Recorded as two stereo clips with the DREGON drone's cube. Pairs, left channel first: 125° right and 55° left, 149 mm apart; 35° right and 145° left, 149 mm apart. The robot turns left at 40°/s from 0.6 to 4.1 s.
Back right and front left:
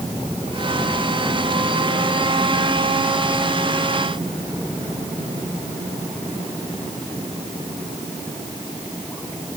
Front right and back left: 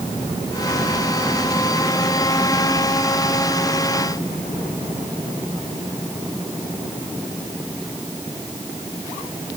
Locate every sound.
Only background noise.